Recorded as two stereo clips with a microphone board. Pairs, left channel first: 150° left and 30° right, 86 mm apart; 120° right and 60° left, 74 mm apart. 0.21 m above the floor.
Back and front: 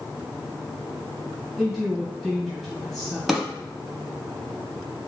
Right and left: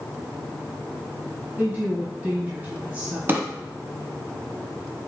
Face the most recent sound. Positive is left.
turn(degrees=55)